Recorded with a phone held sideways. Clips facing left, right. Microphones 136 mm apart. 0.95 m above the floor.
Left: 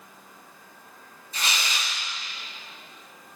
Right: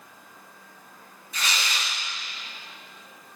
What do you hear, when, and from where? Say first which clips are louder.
1.3 s tearing paper: even; 35° left (ahead or behind), 4 m